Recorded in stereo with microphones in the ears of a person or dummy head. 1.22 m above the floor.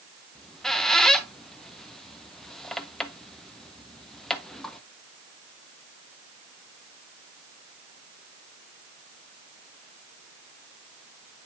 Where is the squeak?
5° left (ahead or behind), 0.6 m.